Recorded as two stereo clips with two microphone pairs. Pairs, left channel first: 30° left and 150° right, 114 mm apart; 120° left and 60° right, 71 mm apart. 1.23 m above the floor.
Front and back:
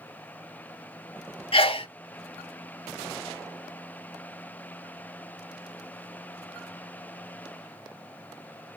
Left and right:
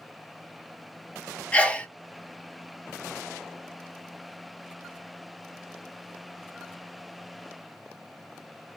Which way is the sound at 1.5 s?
50° left.